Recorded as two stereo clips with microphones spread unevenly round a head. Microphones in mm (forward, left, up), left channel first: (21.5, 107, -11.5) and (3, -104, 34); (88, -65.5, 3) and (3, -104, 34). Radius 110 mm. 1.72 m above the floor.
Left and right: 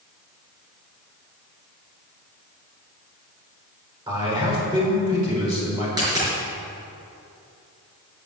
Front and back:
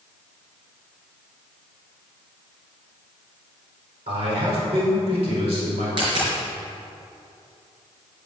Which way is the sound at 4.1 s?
165° right.